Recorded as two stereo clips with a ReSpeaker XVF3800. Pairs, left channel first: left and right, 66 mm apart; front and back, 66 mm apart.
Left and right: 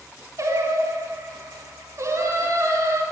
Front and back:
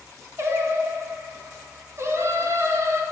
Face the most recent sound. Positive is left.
turn(degrees=-130)